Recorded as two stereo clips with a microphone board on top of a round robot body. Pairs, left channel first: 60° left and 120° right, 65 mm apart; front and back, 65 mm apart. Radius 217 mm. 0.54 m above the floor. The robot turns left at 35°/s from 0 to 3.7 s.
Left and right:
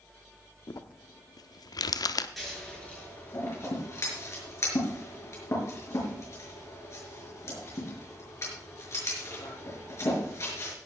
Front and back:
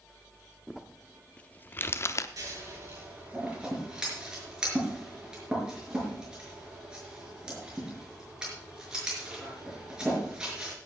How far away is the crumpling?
About 0.7 m.